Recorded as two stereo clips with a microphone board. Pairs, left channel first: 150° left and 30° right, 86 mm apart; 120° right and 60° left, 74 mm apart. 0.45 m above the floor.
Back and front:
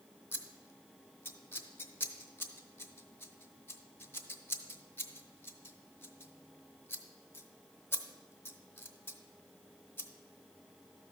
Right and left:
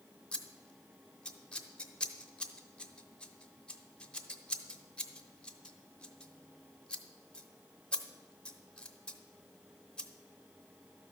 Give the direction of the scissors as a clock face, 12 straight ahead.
6 o'clock.